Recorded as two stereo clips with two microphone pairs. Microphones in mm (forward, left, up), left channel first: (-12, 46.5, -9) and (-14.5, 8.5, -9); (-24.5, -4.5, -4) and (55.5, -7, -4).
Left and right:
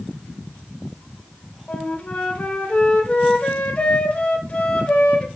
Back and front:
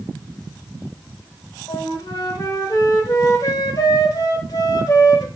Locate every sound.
1.7 s a flute: 140° left, 0.9 m